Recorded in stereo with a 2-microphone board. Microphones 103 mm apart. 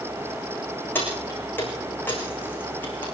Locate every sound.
0.9 s keys jangling: 20° left (ahead or behind), 7 m